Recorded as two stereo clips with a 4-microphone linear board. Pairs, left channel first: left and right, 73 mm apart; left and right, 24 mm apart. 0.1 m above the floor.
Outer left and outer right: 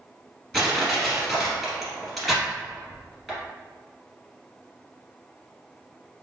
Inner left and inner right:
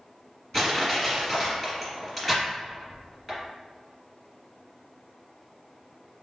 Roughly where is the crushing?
Centre.